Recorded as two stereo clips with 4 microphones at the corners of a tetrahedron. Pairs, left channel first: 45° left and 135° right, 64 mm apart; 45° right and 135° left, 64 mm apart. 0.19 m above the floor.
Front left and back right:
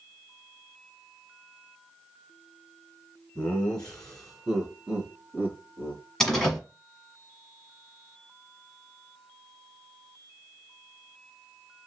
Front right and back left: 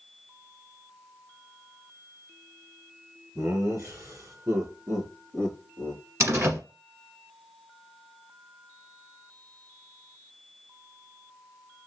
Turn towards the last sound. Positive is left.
turn(degrees=125)